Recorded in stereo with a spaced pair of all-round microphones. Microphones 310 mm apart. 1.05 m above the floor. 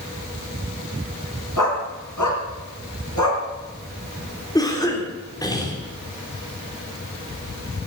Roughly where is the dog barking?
Left.